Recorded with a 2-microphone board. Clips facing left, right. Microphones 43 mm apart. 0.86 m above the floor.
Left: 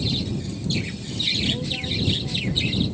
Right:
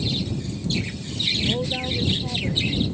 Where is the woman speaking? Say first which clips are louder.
Right 2 dB; 30° right (ahead or behind); by 2.8 s 35° right (ahead or behind).